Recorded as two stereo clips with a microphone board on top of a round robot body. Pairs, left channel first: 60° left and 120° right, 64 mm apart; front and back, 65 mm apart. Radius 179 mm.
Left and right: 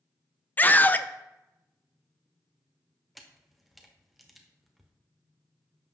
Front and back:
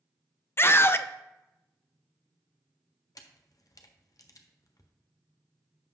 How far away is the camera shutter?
About 0.9 m.